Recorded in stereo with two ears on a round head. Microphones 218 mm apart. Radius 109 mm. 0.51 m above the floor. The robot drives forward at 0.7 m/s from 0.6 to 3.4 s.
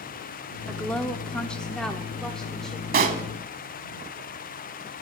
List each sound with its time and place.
0.7 s a woman speaking: 5° left (ahead or behind), 0.7 m; by 3.5 s centre (ahead or behind), 1.8 m
2.9 s a pop: 40° right (ahead or behind), 1.0 m; by 3.2 s 35° right (ahead or behind), 1.2 m